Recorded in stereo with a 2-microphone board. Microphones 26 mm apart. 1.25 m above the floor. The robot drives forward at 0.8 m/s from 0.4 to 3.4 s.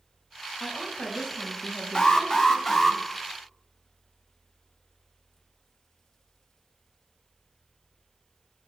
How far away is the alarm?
About 0.9 m.